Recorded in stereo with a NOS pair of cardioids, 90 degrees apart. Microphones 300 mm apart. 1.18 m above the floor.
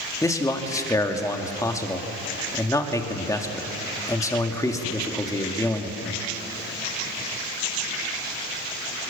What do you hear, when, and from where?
0.2 s a man speaking: 10° left, 2.5 m